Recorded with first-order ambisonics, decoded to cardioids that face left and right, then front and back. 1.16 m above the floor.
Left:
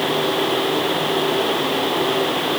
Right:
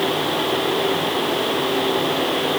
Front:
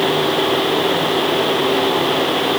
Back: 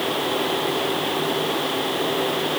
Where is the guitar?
I don't hear a guitar.